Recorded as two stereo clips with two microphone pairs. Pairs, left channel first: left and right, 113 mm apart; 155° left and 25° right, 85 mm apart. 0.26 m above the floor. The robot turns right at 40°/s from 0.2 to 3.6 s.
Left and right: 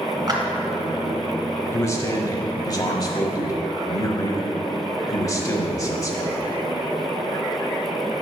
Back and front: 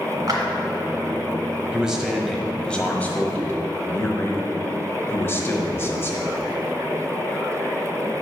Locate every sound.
0.3 s a clap: 50° right, 1.9 m; by 0.4 s 45° right, 1.9 m
1.7 s a man speaking: 40° left, 1.1 m; by 6.4 s 115° left, 1.1 m